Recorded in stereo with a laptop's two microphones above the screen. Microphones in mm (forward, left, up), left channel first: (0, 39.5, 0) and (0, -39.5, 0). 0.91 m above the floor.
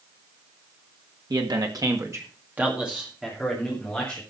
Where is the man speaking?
65° right (ahead or behind), 1.9 m; by 4.2 s 10° left (ahead or behind), 3.5 m.